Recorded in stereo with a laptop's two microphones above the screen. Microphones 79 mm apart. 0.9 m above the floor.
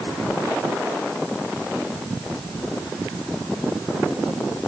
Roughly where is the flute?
No flute in this recording.